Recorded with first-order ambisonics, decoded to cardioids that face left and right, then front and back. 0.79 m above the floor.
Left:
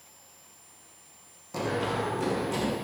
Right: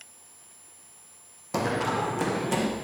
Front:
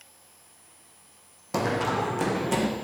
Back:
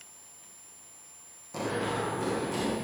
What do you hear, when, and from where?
1.5 s running footsteps: 40° right, 1.5 m